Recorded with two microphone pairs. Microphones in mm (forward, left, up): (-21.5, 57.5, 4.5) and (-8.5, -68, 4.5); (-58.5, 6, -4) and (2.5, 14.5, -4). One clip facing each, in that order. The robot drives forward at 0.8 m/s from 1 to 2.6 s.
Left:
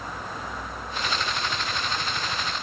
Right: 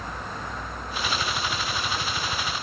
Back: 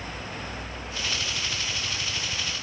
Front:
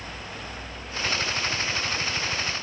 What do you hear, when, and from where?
Only background noise.